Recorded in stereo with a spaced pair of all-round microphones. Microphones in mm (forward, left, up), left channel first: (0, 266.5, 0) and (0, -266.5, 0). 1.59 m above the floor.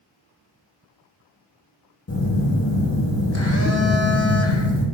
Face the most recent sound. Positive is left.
turn(degrees=25)  # may be behind; listen again after turning